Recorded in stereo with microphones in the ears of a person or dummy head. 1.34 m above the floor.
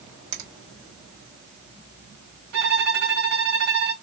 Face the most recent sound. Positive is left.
turn(degrees=-60)  # may be behind; listen again after turning